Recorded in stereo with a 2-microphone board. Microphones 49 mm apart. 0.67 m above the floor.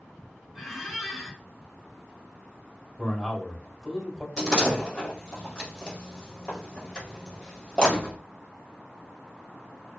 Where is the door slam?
15° left (ahead or behind), 1.8 m.